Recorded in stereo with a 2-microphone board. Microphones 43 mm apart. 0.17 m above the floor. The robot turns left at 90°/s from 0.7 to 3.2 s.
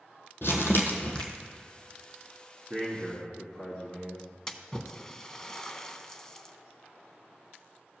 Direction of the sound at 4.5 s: 15° left (ahead or behind).